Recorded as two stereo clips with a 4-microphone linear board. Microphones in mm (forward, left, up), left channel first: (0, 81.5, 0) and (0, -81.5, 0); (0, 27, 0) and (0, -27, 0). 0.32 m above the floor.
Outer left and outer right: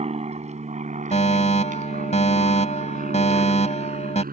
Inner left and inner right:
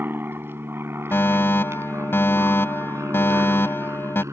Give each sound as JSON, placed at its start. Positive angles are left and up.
{"t": 0.0, "sound": "an aircraft", "side_deg": -40}
{"t": 1.1, "sound": "a fire alarm", "side_deg": 45}